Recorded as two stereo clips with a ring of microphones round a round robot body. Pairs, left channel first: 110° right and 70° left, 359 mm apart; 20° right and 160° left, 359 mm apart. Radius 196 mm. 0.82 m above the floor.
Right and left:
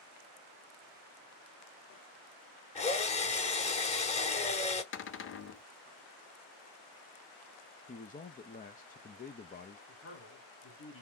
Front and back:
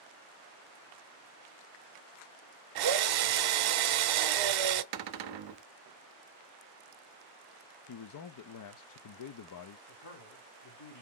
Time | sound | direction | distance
2.8 | a drill | 175° left | 0.6 m
4.9 | a cupboard door | 170° right | 0.6 m
7.9 | a man speaking | 50° right | 0.6 m
9.9 | a man speaking | 60° right | 1.8 m